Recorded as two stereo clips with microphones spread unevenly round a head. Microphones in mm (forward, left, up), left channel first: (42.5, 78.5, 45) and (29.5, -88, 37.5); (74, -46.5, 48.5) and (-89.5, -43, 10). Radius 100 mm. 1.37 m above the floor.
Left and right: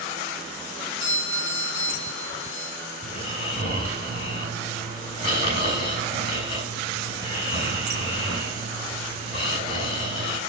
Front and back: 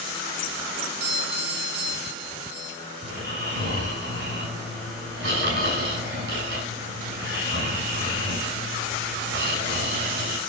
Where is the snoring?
150° left, 6 m.